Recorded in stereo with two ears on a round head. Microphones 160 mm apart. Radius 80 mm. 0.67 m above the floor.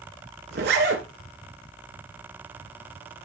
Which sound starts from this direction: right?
A zipper, at 0.5 s.